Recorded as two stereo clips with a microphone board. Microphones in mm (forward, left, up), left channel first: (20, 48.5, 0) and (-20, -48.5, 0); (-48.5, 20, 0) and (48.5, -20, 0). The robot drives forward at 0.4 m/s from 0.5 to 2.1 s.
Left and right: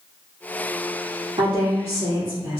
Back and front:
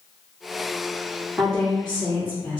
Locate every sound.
1.4 s a woman speaking: 115° right, 2.0 m; by 2.6 s 125° right, 2 m